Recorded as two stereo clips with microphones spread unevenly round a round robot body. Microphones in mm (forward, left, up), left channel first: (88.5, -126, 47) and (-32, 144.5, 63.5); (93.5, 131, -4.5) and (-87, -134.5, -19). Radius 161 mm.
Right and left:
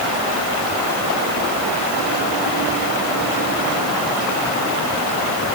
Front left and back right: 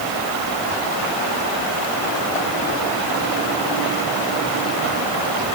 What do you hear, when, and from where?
Only background noise.